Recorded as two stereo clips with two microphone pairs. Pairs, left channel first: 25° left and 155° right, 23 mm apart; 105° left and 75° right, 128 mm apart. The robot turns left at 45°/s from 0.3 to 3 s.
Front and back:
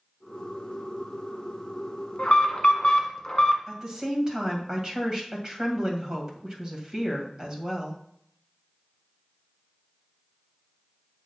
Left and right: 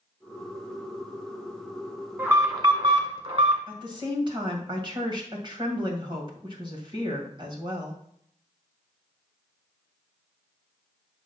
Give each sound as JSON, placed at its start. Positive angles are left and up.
{"t": 2.2, "sound": "an alarm", "azimuth_deg": 0, "distance_m": 1.7}
{"t": 3.7, "sound": "a woman speaking", "azimuth_deg": -105, "distance_m": 2.0}